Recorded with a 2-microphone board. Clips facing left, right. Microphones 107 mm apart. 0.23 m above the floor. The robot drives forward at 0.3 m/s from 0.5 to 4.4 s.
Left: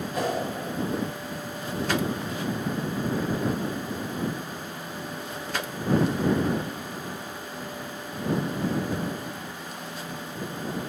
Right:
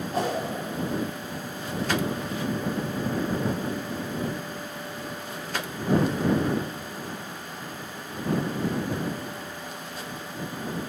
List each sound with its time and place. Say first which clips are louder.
0.1 s a whoosh: right 1 dB; 35° right (ahead or behind), 1.3 m